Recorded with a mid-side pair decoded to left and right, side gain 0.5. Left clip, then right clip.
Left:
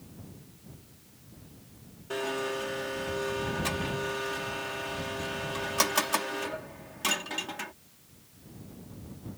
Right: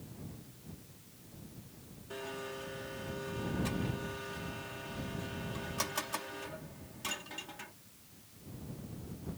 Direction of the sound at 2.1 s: 55° left.